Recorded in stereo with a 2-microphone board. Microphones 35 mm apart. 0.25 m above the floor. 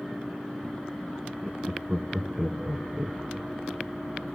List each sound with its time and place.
1.4 s laughter: 15° right (ahead or behind), 2.5 m; by 3.9 s centre (ahead or behind), 4.5 m